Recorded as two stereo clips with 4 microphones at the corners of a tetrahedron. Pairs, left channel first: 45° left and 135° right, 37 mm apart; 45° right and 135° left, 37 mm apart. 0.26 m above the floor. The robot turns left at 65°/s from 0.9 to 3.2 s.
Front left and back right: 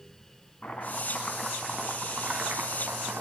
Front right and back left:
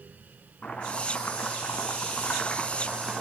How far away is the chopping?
About 2.5 m.